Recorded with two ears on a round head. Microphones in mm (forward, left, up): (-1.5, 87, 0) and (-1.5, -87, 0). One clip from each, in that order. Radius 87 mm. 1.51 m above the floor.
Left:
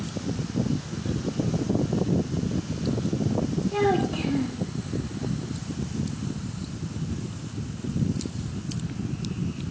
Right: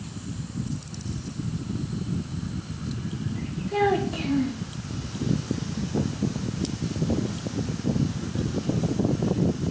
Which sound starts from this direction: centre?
A child speaking, at 3.7 s.